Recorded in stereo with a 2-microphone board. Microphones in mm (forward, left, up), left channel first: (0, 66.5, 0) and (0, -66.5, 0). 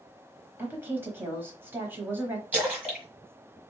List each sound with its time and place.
0.6 s a woman speaking: 15° right (ahead or behind), 1.1 m
2.5 s a splash: 10° right (ahead or behind), 1.4 m